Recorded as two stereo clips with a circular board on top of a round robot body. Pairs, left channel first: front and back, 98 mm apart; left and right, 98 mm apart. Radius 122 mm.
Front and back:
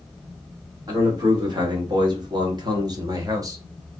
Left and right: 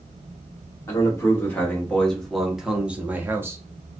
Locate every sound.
0.9 s a man speaking: 145° left, 1.7 m; by 3.6 s 140° right, 1.5 m